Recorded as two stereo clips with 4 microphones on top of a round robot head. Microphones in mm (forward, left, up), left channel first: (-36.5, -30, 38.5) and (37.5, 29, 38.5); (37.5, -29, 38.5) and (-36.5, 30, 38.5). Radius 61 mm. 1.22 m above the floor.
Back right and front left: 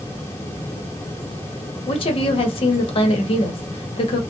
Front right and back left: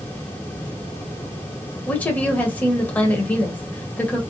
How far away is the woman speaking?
About 0.9 m.